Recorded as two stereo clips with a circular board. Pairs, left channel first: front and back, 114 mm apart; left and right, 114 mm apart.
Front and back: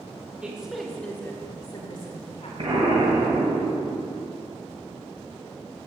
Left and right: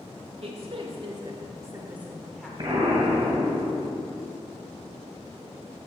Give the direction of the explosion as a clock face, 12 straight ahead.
5 o'clock.